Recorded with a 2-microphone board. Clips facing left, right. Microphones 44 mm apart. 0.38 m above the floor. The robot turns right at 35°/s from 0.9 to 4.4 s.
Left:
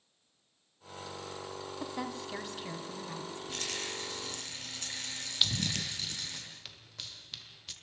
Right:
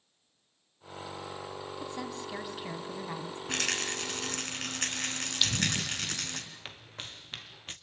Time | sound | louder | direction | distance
1.8 | a woman speaking | left 1 dB | 165° left | 3 m
3.5 | a rattle | right 8 dB | 95° right | 3.5 m
5.4 | running footsteps | right 2 dB | 5° left (ahead or behind) | 0.5 m